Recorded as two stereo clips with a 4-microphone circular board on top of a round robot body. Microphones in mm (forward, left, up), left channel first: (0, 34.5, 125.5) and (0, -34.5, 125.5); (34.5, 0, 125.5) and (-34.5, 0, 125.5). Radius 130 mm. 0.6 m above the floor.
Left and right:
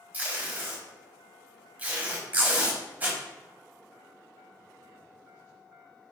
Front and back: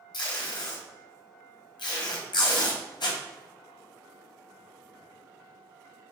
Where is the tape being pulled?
20° right, 1.3 m.